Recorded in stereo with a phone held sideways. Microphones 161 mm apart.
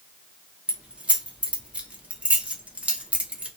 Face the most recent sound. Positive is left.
turn(degrees=-10)  # may be behind; listen again after turning